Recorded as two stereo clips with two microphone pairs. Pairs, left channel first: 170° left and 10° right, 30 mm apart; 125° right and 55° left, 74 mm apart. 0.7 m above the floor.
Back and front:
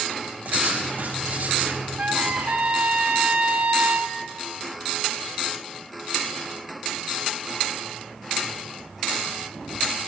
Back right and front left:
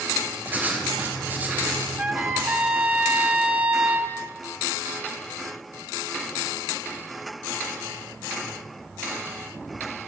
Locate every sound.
0.5 s writing: 10° right, 3 m
2.0 s a trumpet: 15° right, 1.2 m